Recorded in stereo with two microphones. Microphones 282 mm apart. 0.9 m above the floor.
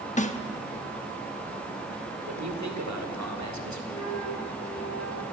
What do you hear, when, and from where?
0.2 s a snare drum: 25° left (ahead or behind), 0.9 m
2.2 s a man speaking: 75° right (ahead or behind), 3 m
3.9 s a flute: 70° left (ahead or behind), 1.9 m